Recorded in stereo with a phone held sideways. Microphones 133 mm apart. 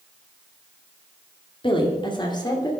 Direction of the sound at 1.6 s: 40° left (ahead or behind).